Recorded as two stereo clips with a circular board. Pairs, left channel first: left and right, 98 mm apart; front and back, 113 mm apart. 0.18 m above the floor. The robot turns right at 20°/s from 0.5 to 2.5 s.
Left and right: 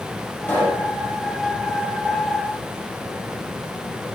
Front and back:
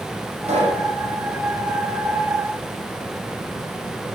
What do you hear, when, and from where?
0.5 s a pop: 160° left, 7.5 m; by 0.9 s 170° left, 7.5 m